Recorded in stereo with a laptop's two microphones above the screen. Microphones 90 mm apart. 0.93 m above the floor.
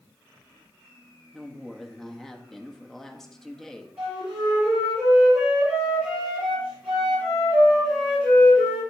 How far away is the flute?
About 4.5 m.